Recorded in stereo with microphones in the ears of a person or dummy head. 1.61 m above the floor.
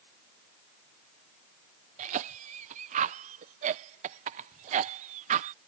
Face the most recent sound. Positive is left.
turn(degrees=-40)  # may be behind; listen again after turning